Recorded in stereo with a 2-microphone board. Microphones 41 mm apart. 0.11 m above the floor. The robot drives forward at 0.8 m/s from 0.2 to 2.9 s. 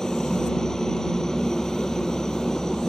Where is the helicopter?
15° left (ahead or behind).